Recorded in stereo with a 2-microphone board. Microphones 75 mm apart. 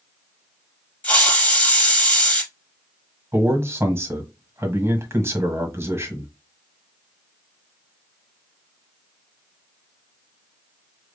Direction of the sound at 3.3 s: 35° right (ahead or behind).